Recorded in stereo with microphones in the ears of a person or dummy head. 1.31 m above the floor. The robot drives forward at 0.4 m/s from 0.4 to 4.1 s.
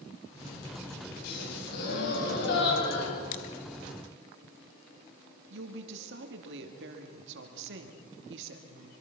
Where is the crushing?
45° left (ahead or behind), 1.7 m; by 3.5 s 50° left (ahead or behind), 1.6 m.